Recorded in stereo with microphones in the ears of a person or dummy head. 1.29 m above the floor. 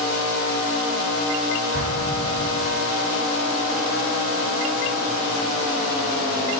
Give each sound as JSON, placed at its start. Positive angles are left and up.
{"t": 1.7, "sound": "an explosion", "side_deg": -60, "distance_m": 5.0}